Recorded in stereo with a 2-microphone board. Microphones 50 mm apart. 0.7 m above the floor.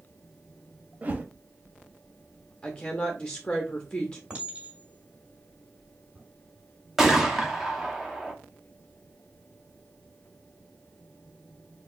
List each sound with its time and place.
1.0 s a whoosh: 30° right (ahead or behind), 0.7 m
2.6 s a woman speaking: 15° left (ahead or behind), 0.7 m
4.3 s a clink: 25° right (ahead or behind), 2 m
7.0 s a gunshot: 10° right (ahead or behind), 0.9 m